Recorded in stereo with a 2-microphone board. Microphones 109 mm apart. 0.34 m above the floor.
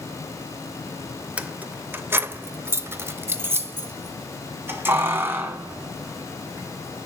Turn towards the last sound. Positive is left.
turn(degrees=-20)  # may be behind; listen again after turning